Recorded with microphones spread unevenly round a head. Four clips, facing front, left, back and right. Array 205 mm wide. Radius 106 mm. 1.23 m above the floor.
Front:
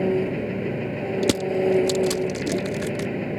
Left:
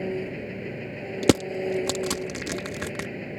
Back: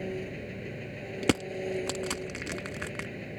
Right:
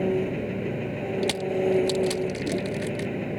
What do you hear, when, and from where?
0.0 s an engine running: 20° right
1.2 s crushing: 85° left